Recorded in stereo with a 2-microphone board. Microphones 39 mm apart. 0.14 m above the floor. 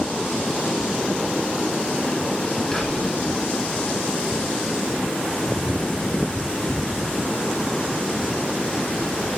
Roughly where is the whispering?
Left.